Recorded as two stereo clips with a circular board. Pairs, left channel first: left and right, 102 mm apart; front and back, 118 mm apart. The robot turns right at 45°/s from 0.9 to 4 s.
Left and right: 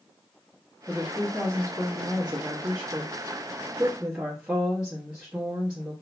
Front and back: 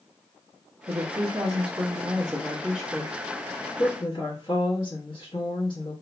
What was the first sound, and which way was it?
A woman speaking, 155° right.